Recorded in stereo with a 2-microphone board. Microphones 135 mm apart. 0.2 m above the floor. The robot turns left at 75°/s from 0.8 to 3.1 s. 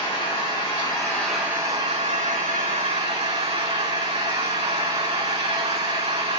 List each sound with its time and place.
0.0 s an engine running: 40° left, 6.5 m; by 6.4 s 135° right, 6.5 m